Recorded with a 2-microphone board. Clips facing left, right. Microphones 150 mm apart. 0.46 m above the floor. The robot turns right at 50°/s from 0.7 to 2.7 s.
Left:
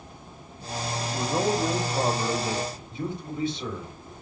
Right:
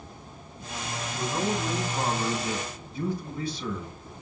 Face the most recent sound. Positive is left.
turn(degrees=150)